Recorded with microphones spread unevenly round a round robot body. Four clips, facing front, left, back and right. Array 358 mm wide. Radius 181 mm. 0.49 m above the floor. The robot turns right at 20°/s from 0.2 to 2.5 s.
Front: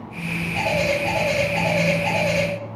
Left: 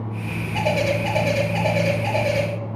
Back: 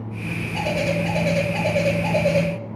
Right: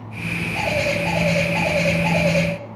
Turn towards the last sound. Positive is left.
turn(degrees=170)